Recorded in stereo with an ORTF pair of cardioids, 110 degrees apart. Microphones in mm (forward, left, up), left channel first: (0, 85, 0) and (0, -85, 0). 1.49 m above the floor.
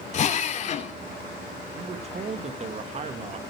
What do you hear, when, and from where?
0.1 s a drill: 45° left, 3 m
1.8 s a man speaking: 40° right, 2 m